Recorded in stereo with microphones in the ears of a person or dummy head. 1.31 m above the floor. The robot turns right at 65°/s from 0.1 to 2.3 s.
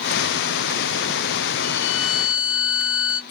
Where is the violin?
70° left, 0.5 m; by 3.2 s 110° left, 0.5 m.